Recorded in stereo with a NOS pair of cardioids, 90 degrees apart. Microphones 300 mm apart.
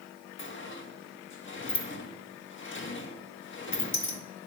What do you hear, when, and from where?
0.4 s a sliding door: 40° left, 1.4 m